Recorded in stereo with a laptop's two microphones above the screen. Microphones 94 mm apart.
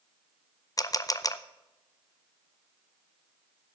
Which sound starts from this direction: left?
A camera shutter, at 0.8 s.